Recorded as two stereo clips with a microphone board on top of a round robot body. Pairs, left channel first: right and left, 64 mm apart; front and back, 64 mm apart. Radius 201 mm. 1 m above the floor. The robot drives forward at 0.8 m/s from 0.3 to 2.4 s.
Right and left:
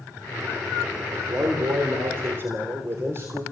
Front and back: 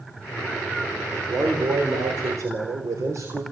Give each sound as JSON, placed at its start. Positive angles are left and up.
{"t": 1.1, "sound": "a man speaking", "azimuth_deg": 130, "distance_m": 3.5}